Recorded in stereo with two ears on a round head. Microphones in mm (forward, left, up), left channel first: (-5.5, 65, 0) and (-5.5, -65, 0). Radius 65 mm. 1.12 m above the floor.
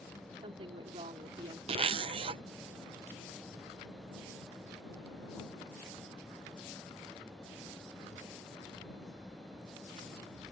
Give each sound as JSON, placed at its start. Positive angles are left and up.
{"t": 0.4, "sound": "a woman speaking", "side_deg": -40}
{"t": 1.7, "sound": "a zipper", "side_deg": -40}